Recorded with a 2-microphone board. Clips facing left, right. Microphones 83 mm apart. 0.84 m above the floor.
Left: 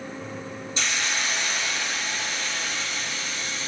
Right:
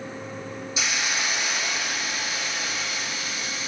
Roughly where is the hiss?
Centre.